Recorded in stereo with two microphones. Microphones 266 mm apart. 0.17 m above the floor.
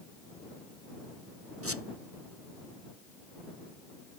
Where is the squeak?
55° right (ahead or behind).